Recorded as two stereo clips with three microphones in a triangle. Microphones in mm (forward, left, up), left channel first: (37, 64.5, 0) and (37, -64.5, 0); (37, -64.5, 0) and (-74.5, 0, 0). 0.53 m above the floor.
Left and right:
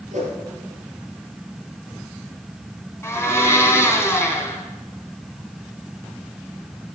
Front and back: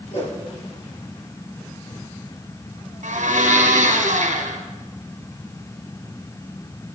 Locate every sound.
0.1 s a whoosh: 70° right, 5 m
3.0 s a blender: 160° left, 2 m